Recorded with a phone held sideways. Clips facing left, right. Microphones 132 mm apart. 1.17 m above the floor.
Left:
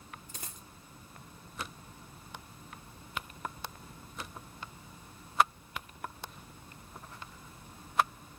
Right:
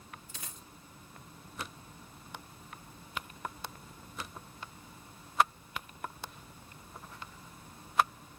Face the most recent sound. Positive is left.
turn(degrees=40)  # may be behind; listen again after turning